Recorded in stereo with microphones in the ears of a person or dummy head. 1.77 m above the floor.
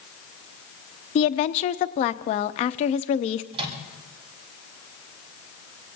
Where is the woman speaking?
35° left (ahead or behind), 0.7 m.